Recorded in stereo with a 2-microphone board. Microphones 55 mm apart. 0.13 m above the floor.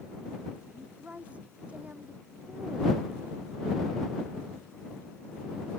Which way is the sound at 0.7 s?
20° right (ahead or behind).